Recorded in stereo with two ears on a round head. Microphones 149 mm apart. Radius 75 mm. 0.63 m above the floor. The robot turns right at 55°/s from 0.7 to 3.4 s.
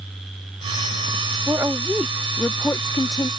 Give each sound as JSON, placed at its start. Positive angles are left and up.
{"t": 1.5, "sound": "a woman speaking", "side_deg": -15}